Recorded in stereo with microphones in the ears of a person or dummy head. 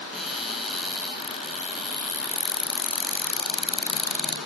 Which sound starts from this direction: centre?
A cupboard door, at 0.1 s.